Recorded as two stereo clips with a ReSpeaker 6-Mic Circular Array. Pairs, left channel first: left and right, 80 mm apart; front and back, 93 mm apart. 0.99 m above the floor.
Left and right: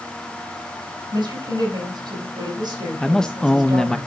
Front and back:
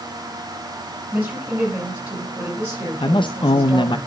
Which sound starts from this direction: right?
A woman speaking, at 1.1 s.